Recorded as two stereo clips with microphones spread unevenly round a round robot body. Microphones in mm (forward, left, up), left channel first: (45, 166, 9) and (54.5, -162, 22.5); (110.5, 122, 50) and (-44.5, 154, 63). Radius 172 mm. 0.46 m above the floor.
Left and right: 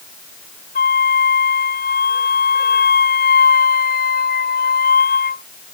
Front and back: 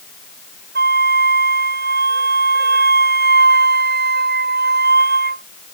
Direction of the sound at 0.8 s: 160° left.